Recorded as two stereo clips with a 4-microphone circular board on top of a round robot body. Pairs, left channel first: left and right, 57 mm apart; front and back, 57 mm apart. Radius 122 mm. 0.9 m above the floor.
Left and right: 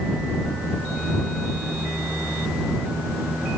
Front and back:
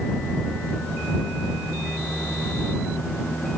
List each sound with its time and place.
Only background noise.